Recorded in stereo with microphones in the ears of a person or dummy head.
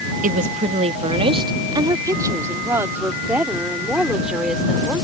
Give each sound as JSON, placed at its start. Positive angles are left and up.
{"t": 0.2, "sound": "a woman speaking", "side_deg": -40}